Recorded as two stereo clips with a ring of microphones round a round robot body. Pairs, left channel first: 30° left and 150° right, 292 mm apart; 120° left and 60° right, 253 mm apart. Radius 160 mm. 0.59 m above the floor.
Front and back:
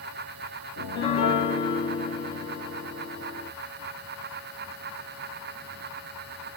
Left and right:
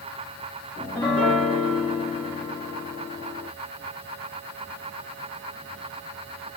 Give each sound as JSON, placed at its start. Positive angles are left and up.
{"t": 0.8, "sound": "a piano", "azimuth_deg": 35, "distance_m": 1.7}